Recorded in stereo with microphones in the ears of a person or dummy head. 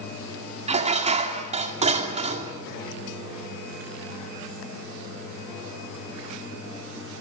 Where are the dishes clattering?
30° right (ahead or behind), 2 m.